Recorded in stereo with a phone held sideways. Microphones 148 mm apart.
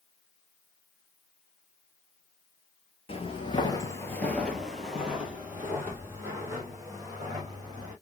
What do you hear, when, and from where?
3.1 s footsteps: 40° left (ahead or behind), 1.7 m; by 7.9 s 25° right (ahead or behind), 5 m